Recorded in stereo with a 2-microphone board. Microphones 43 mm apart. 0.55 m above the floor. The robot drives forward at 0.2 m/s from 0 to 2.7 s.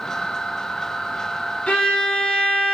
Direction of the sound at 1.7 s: 30° left (ahead or behind).